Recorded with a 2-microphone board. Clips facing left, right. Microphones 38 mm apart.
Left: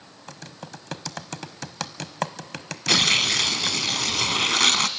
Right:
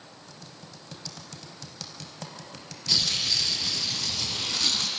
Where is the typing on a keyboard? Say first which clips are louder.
Left 10 dB; 80° left, 0.9 m.